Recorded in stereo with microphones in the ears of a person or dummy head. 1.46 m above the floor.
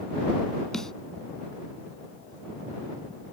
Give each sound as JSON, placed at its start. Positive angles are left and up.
{"t": 0.7, "sound": "a snare drum", "side_deg": 0}